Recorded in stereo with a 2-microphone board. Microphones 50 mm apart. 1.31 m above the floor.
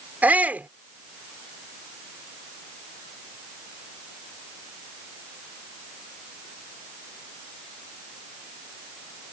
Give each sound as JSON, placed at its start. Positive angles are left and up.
{"t": 0.2, "sound": "a shout", "side_deg": -30}